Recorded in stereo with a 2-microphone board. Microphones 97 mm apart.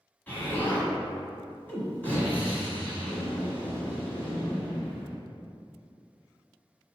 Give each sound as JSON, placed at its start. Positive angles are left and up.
{"t": 0.3, "sound": "an explosion", "side_deg": 20, "distance_m": 1.3}